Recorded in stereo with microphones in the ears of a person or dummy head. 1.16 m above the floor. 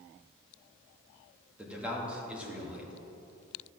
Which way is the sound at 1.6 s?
5° right (ahead or behind).